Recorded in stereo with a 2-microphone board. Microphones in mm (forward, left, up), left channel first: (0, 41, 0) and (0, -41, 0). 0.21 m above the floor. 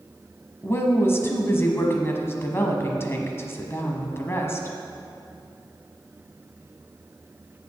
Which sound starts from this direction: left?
A woman speaking, at 0.6 s.